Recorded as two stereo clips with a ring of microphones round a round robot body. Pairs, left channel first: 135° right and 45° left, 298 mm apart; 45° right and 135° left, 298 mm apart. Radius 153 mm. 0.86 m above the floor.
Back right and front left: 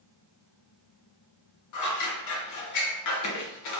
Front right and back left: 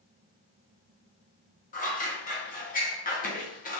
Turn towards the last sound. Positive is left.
turn(degrees=-110)